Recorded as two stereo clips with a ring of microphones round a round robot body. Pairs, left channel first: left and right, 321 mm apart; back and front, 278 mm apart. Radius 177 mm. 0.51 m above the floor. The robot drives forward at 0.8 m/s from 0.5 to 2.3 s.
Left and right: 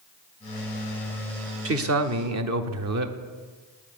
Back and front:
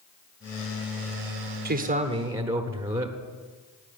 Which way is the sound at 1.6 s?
50° right.